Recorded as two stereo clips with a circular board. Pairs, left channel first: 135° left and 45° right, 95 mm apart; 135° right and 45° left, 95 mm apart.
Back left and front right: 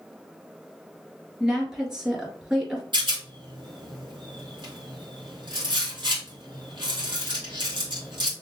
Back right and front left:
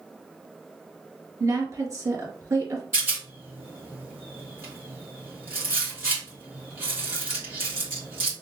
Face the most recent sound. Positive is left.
turn(degrees=-20)